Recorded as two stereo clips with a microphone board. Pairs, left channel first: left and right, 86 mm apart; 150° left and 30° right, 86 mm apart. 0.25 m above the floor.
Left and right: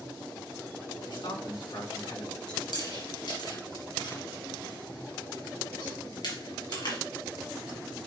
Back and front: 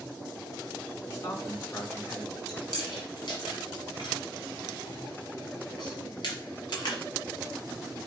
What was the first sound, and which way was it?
A man speaking, 100° left.